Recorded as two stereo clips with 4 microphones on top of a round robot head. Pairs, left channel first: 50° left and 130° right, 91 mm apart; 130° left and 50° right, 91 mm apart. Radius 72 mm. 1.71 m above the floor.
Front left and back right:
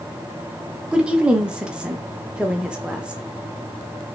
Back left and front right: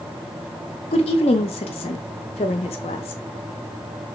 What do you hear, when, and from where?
0.9 s a woman speaking: 150° left, 0.7 m